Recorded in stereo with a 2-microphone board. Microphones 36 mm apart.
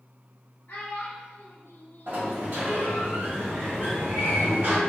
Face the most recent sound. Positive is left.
turn(degrees=-70)  # may be behind; listen again after turning